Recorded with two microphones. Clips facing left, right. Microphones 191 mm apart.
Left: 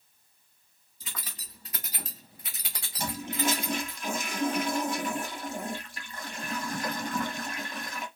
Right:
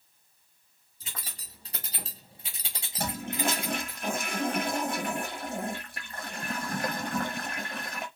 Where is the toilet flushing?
50° right (ahead or behind), 0.7 m.